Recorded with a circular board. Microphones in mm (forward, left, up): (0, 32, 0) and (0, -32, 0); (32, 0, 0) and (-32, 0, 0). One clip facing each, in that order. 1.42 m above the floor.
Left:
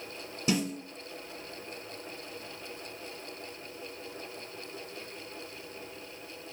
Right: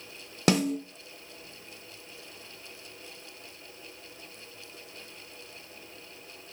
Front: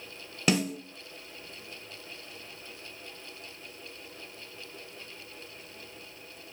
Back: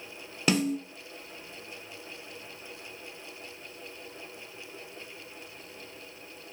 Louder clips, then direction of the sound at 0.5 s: Right 5 dB, back 1 dB; 90° right.